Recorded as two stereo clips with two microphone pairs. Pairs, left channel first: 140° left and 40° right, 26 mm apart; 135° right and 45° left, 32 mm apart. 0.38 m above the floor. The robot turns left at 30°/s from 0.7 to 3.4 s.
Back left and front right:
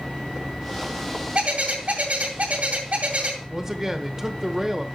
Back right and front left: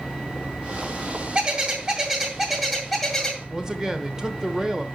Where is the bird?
Straight ahead, 2 m; by 3.4 s 60° right, 2 m.